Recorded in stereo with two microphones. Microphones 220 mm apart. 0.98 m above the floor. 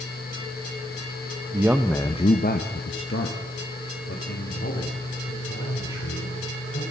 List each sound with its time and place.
1.5 s a man speaking: 20° right (ahead or behind), 0.7 m; by 6.8 s 85° left, 4 m